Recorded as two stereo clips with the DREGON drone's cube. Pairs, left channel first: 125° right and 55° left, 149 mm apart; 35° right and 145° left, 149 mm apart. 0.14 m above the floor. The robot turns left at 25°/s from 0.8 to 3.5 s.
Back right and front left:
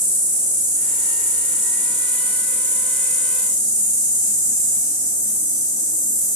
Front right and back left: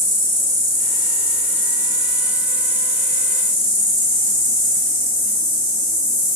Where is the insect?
120° right, 1.4 m; by 6.4 s 170° left, 1.4 m.